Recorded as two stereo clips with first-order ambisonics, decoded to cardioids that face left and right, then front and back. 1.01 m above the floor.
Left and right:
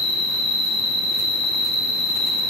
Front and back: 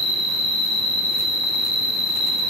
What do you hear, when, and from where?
0.0 s an insect: 30° left, 2 m